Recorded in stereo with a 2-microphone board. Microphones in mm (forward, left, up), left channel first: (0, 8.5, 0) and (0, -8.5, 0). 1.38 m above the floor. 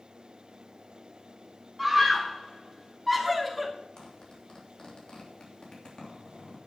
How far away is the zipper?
About 3 m.